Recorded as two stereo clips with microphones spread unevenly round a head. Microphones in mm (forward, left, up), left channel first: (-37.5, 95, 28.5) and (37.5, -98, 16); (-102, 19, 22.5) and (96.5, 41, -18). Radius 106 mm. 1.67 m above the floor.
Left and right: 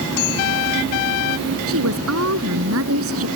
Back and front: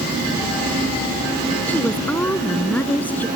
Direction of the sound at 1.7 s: 90° right.